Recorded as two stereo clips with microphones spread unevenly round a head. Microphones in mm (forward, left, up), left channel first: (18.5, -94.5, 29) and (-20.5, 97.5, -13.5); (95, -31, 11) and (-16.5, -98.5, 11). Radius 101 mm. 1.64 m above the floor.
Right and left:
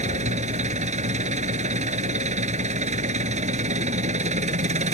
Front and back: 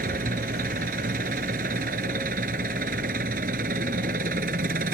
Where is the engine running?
160° left.